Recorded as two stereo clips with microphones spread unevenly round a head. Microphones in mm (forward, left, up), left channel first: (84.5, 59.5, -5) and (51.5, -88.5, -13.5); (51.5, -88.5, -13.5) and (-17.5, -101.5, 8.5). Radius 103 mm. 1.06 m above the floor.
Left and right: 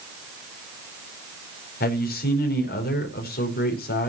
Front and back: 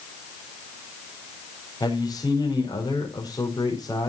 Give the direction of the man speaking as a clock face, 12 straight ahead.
10 o'clock.